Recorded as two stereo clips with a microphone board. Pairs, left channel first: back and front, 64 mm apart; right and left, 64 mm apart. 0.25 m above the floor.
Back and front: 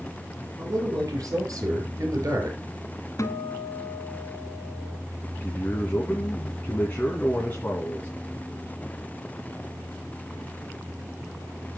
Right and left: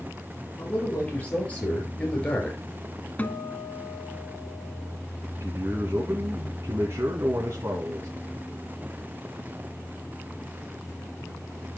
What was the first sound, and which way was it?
A man speaking, 25° right.